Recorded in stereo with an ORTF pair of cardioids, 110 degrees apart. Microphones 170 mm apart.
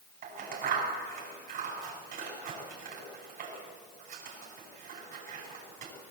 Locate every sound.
0.2 s scissors: 60° right, 7.5 m